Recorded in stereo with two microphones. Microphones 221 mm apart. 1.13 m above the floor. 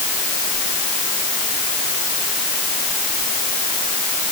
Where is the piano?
I don't hear a piano.